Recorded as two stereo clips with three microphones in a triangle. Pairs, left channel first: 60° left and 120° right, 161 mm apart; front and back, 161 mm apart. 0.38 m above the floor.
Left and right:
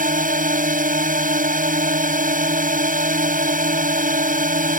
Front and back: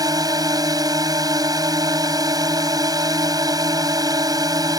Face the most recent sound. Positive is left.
turn(degrees=-120)